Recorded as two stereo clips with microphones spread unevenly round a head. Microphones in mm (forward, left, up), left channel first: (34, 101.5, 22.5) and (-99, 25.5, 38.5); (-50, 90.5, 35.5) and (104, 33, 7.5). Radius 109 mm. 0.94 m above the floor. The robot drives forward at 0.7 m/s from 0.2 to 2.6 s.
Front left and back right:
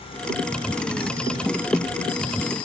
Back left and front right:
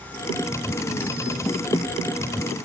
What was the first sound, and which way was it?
Only background noise.